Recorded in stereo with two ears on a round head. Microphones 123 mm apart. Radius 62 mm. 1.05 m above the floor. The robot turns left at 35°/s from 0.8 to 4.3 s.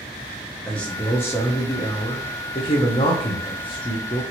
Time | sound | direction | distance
0.7 | a man speaking | 170° left | 0.6 m